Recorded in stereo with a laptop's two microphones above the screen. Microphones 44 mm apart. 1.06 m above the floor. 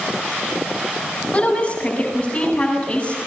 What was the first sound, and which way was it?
A woman speaking, 25° left (ahead or behind).